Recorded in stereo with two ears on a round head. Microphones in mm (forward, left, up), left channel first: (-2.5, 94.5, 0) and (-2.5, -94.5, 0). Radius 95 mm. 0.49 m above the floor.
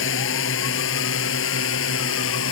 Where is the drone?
65° left (ahead or behind); by 2.5 s 70° left (ahead or behind).